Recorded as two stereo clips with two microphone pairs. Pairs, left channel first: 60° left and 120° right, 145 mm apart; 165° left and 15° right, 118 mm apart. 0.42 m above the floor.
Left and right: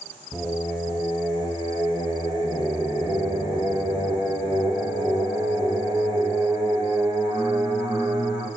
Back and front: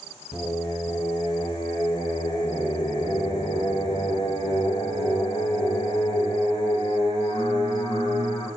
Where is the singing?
Straight behind, 3 m.